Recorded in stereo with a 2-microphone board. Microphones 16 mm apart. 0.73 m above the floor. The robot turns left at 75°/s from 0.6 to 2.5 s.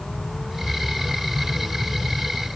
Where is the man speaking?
No man speaking in this recording.